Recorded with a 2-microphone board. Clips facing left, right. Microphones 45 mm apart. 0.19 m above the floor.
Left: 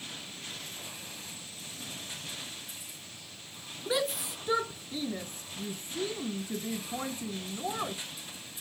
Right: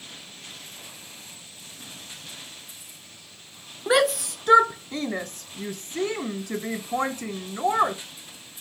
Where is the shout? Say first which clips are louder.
Right 10 dB; 75° right (ahead or behind); by 8.0 s 70° right (ahead or behind).